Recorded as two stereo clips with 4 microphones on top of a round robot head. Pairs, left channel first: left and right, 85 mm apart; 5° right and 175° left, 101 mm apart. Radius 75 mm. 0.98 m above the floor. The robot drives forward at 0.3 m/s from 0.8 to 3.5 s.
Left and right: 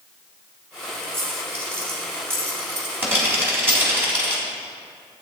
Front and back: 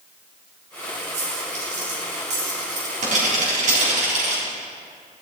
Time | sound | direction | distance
1.1 | a dropped coin | 155° right | 3.5 m